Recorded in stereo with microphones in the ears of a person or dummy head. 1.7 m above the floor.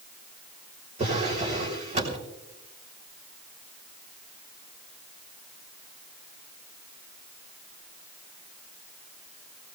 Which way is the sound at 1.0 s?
35° right (ahead or behind).